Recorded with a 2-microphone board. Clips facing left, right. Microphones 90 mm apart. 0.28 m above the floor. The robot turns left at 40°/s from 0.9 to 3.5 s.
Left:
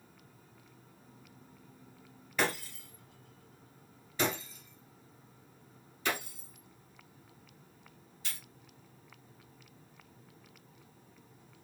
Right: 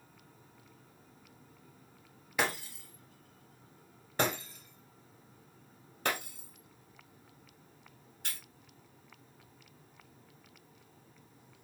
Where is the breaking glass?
15° right (ahead or behind), 1.9 m; by 8.4 s 60° right (ahead or behind), 1.9 m.